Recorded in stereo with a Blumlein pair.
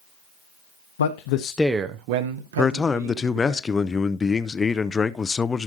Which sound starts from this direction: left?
A man speaking, at 1.0 s.